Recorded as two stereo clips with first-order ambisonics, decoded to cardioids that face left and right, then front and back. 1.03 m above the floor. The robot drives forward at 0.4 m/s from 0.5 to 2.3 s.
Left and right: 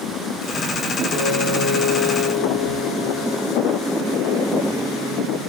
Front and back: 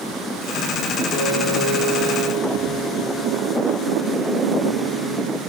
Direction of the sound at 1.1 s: 120° left.